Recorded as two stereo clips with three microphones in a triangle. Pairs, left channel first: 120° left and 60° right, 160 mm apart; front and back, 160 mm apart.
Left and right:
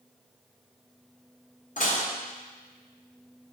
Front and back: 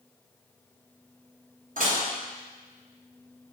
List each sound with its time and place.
1.8 s dishes clattering: 150° left, 0.9 m